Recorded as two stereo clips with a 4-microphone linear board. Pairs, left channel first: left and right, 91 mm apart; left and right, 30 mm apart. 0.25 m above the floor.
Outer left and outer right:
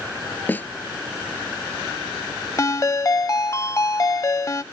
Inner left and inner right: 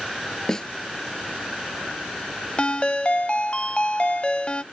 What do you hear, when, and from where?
0.5 s a snare drum: 20° left (ahead or behind)
2.6 s a ringtone: 35° left (ahead or behind)